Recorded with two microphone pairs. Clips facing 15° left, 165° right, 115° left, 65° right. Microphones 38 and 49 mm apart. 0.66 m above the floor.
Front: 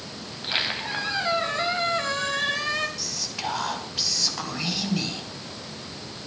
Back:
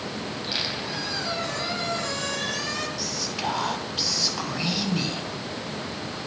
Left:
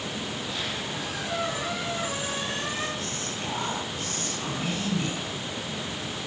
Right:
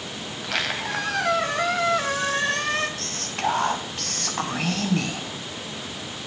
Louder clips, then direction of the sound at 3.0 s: Back 3 dB, right 5 dB; 85° right.